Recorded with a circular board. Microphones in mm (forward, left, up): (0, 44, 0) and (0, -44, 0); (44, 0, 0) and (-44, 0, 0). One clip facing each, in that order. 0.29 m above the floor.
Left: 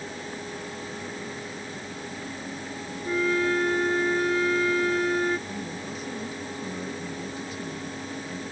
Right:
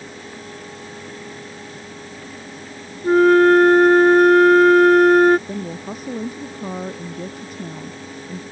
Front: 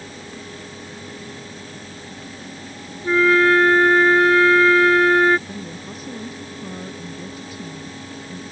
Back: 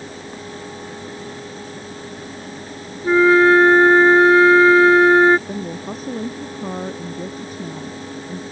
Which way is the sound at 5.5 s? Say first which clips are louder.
Right 6 dB, back 6 dB; 130° right.